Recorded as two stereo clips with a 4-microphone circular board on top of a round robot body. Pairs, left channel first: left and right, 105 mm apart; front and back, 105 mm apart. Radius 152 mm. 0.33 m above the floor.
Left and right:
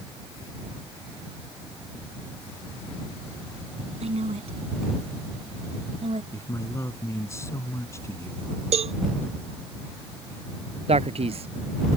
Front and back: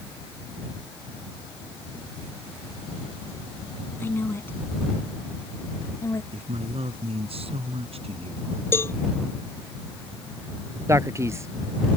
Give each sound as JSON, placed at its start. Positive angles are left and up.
{"t": 4.0, "sound": "a woman speaking", "azimuth_deg": -70}
{"t": 6.3, "sound": "a man speaking", "azimuth_deg": 155}
{"t": 8.7, "sound": "a cowbell", "azimuth_deg": -70}
{"t": 10.9, "sound": "a man speaking", "azimuth_deg": -115}